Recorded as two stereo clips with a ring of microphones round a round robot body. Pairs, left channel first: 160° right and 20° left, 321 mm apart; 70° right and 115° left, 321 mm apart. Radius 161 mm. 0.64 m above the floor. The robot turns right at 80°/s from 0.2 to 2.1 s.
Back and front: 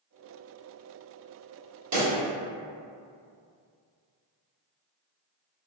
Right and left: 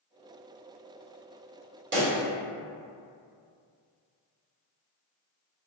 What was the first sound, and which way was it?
A pop, 55° left.